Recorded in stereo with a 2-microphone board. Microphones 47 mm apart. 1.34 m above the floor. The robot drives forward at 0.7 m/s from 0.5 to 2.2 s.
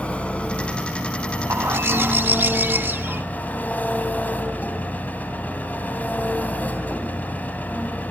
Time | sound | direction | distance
0.0 | an engine running | 25° left (ahead or behind) | 4 m
1.5 | a bird | 65° right (ahead or behind) | 1.1 m